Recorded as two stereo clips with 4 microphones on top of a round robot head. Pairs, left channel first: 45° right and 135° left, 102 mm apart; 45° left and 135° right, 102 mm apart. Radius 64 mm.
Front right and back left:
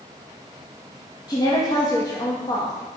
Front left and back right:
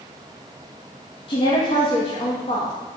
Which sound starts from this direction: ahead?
A woman speaking, at 1.3 s.